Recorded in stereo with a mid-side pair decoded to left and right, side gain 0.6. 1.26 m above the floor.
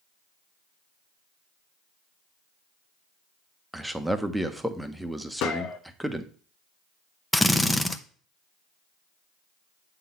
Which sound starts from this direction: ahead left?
A gunshot, at 5.4 s.